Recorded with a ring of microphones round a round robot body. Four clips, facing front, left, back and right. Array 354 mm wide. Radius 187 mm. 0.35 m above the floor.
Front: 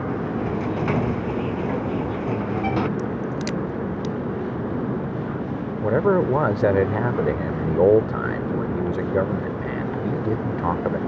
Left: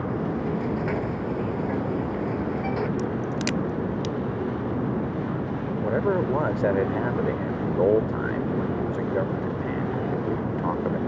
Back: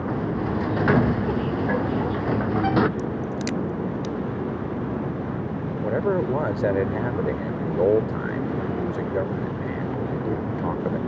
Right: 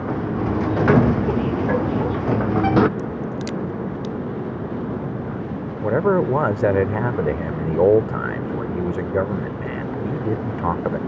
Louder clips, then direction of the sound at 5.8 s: Right 6 dB, front 4 dB; 55° right.